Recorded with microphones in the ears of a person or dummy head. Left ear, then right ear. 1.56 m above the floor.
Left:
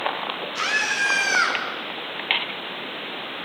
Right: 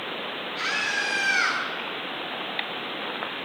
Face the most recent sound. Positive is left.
turn(degrees=75)  # may be behind; listen again after turning